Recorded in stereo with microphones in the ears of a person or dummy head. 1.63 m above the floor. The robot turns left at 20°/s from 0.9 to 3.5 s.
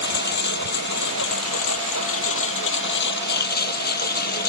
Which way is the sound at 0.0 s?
110° left.